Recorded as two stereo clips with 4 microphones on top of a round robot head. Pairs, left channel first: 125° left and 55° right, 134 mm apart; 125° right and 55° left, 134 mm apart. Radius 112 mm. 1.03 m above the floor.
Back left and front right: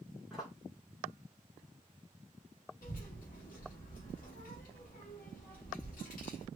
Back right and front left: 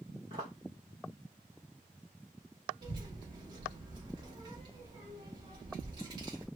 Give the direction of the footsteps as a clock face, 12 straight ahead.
11 o'clock.